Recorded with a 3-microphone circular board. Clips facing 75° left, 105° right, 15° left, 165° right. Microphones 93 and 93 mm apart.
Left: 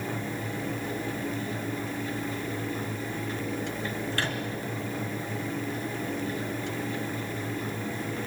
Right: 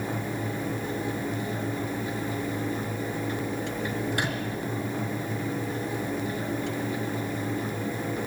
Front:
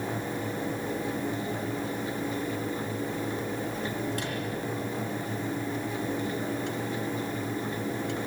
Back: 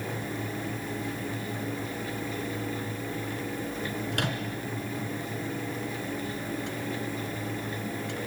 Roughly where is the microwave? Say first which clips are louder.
Right 2 dB, back 1 dB; behind.